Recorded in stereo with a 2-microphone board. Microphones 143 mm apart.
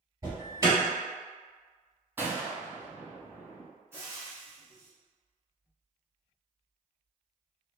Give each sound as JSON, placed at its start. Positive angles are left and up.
{"t": 0.2, "sound": "an alarm", "side_deg": -25, "distance_m": 2.0}
{"t": 2.2, "sound": "a gunshot", "side_deg": -15, "distance_m": 0.6}
{"t": 3.9, "sound": "frying", "side_deg": -20, "distance_m": 1.5}